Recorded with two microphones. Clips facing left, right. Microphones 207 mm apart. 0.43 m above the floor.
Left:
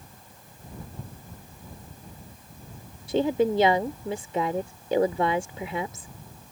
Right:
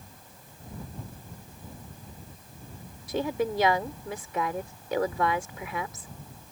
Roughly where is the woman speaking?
Left.